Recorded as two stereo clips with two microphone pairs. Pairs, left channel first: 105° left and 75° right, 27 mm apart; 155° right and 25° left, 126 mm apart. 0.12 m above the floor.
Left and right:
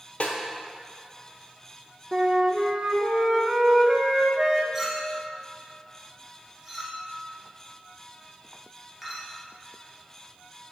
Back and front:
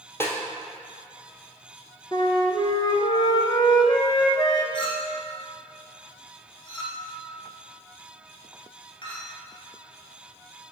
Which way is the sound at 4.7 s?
140° right.